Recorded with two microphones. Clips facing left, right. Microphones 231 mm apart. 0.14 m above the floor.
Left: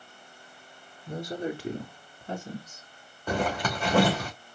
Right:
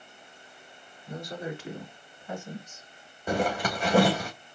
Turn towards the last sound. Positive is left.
turn(degrees=-10)  # may be behind; listen again after turning